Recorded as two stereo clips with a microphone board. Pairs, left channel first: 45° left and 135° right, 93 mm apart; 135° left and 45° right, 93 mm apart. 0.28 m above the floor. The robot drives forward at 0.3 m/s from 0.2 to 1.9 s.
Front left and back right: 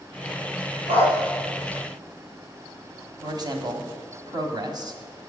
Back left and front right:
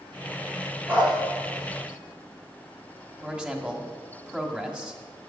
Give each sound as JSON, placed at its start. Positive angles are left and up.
{"t": 0.9, "sound": "a dog barking", "azimuth_deg": -115, "distance_m": 3.0}
{"t": 3.2, "sound": "a man speaking", "azimuth_deg": -120, "distance_m": 1.4}